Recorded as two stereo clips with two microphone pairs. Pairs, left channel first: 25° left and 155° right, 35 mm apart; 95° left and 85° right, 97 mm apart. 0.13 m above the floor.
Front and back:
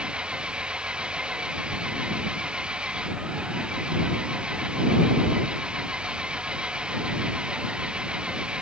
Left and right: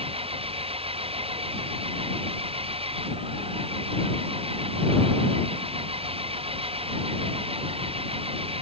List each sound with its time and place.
0.0 s an engine running: 90° right